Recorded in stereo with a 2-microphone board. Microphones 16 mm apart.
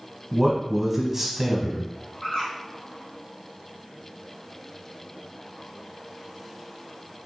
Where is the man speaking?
20° right (ahead or behind), 1.1 m.